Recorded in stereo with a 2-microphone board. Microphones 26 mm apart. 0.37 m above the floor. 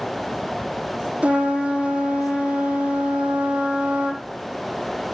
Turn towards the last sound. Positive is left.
turn(degrees=-60)  # may be behind; listen again after turning